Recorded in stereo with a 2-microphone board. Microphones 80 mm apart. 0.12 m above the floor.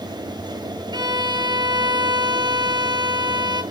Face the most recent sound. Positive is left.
turn(degrees=-60)  # may be behind; listen again after turning